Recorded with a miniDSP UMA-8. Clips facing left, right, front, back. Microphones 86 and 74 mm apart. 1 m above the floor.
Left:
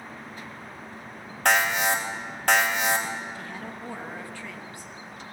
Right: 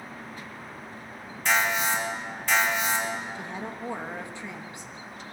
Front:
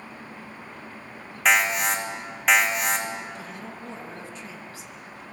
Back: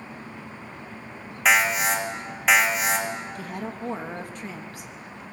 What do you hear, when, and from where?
1.4 s an alarm: 95° left, 2 m
3.4 s a woman speaking: 155° right, 1.5 m